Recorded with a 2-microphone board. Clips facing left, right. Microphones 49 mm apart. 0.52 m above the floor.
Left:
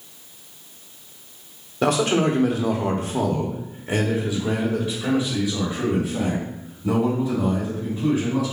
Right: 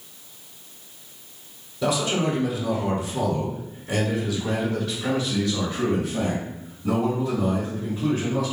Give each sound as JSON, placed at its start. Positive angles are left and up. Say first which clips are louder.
{"t": 1.8, "sound": "a man speaking", "louder": "left 4 dB", "side_deg": 50, "distance_m": 1.1}